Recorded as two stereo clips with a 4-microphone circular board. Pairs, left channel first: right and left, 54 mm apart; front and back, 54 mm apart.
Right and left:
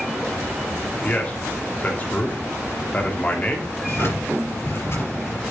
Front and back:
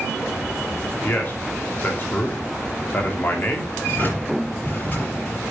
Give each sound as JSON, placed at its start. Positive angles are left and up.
{"t": 1.0, "sound": "a man speaking", "azimuth_deg": -40, "distance_m": 1.6}
{"t": 3.8, "sound": "a drawer", "azimuth_deg": -55, "distance_m": 4.0}